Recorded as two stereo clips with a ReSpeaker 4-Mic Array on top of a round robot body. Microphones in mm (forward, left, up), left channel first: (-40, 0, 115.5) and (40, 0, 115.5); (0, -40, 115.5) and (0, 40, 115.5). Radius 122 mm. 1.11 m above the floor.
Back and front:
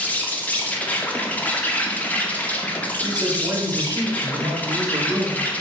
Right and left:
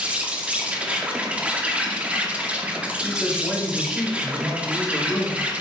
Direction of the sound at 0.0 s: 140° left.